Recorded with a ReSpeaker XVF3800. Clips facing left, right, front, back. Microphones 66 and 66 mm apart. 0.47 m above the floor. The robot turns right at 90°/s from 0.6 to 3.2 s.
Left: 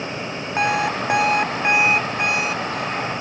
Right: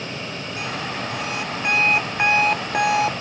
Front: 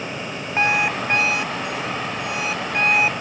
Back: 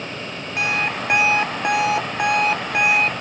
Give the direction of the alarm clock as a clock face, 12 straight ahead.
10 o'clock.